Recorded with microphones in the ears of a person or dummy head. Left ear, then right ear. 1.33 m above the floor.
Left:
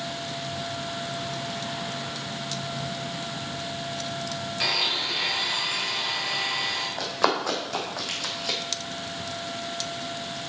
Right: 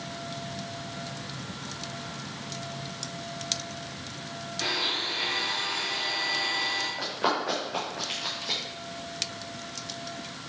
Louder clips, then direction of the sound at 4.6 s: Left 3 dB; 35° left (ahead or behind).